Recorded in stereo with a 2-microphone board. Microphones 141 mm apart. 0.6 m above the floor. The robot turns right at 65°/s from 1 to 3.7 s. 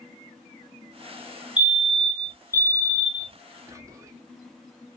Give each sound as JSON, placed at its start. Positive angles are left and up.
{"t": 1.6, "sound": "a fire alarm", "side_deg": -5, "distance_m": 1.7}
{"t": 3.7, "sound": "whispering", "side_deg": -25, "distance_m": 1.0}